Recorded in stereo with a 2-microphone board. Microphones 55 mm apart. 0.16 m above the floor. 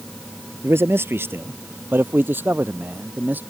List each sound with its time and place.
0.6 s a man speaking: 50° right (ahead or behind); by 3.4 s 35° right (ahead or behind)